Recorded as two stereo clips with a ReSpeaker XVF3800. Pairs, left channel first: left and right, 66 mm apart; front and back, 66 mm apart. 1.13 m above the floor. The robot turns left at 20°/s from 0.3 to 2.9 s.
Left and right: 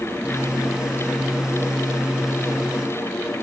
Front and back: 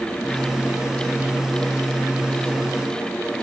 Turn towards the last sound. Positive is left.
No sound to turn to.